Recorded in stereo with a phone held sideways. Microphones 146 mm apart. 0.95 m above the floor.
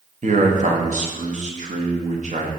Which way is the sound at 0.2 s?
55° right (ahead or behind).